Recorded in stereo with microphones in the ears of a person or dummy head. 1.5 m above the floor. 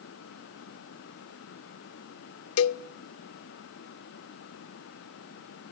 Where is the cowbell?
80° left, 0.6 m.